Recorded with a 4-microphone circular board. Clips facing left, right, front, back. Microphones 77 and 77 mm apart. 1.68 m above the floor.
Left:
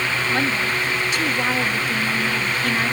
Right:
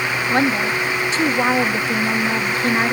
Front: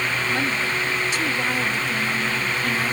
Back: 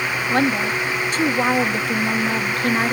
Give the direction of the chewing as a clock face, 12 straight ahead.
No chewing in this recording.